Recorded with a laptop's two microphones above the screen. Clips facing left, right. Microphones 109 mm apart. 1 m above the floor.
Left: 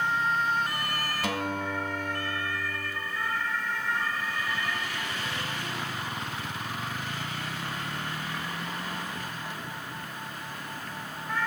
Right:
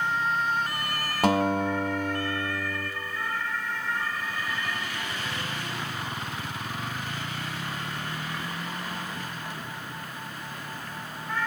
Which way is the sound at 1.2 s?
65° right (ahead or behind).